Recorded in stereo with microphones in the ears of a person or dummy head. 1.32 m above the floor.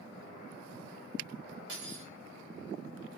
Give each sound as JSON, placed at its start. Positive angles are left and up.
{"t": 1.7, "sound": "cutlery clinking", "side_deg": -70, "distance_m": 2.5}